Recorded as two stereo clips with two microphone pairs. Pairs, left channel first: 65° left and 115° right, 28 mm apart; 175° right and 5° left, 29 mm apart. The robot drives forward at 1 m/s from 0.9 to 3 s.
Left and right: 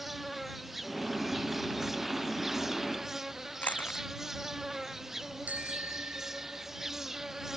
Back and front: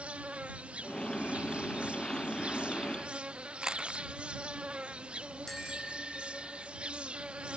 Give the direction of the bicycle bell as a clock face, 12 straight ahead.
3 o'clock.